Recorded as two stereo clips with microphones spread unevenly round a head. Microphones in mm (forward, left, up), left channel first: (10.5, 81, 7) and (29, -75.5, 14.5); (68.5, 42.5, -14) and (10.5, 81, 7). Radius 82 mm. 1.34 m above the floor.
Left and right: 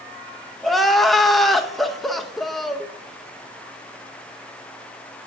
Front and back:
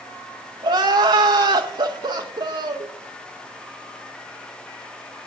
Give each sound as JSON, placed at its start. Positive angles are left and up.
{"t": 0.6, "sound": "crying", "azimuth_deg": -175, "distance_m": 0.5}